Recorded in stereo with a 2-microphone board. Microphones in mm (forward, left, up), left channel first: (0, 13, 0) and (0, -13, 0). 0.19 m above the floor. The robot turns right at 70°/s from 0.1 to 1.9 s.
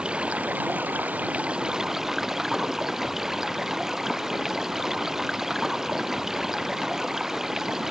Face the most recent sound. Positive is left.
turn(degrees=-15)